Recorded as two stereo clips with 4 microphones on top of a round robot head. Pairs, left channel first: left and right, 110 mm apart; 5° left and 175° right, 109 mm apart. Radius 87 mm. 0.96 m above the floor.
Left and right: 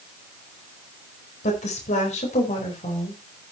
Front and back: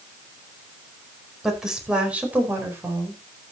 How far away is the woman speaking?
About 5 m.